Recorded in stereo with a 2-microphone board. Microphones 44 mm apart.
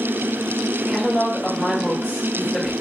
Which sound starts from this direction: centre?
A woman speaking, at 0.9 s.